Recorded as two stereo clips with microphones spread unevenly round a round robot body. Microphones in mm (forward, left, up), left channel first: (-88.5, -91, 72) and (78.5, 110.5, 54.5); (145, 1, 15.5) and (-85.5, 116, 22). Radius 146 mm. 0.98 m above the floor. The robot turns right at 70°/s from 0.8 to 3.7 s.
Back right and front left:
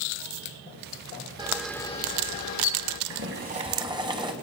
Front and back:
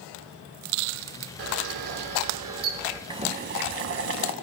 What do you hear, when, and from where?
1.4 s a camera shutter: 125° left, 1.3 m; by 3.0 s 125° right, 1.3 m
3.1 s boiling: 85° left, 1.6 m; by 4.3 s 125° left, 1.6 m